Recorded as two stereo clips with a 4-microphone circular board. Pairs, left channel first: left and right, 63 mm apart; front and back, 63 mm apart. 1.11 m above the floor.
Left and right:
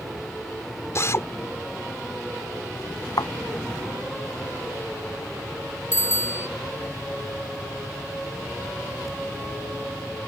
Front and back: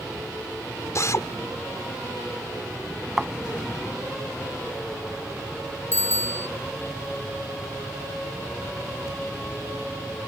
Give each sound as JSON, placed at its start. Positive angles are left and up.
{"t": 0.9, "sound": "a drill", "azimuth_deg": 45}
{"t": 3.2, "sound": "a thud", "azimuth_deg": 95}
{"t": 5.9, "sound": "a bicycle bell", "azimuth_deg": 130}